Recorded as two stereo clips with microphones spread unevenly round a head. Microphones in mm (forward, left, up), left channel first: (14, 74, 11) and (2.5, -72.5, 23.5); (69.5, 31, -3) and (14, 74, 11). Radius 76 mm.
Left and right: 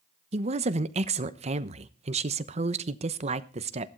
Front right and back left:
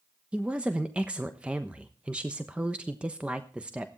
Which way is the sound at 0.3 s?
130° right.